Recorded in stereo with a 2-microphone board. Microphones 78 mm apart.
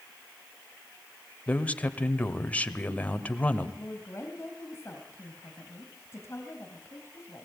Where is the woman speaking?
30° left (ahead or behind), 3 m.